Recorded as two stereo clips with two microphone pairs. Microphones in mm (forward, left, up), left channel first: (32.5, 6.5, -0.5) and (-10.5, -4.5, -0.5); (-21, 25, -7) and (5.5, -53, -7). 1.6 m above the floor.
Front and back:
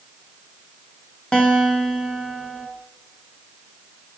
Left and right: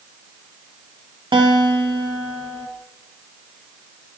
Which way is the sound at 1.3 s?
50° right.